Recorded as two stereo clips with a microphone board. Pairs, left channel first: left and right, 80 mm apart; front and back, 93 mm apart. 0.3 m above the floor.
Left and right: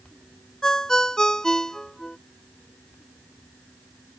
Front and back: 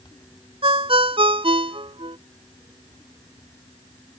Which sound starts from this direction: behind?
A ringtone, at 0.6 s.